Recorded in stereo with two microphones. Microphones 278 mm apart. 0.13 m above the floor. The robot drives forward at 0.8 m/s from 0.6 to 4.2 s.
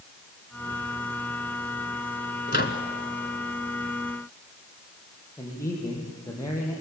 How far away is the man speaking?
About 5 m.